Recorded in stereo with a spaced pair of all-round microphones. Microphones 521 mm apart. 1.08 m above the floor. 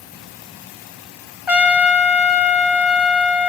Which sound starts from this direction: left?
A trumpet, at 1.5 s.